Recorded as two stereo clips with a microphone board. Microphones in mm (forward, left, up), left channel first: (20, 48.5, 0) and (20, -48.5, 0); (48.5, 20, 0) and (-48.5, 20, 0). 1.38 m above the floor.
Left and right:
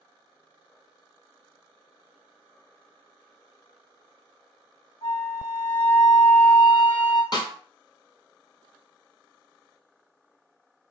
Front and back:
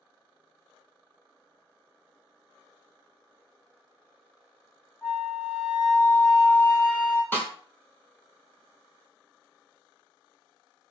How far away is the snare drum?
About 1.4 m.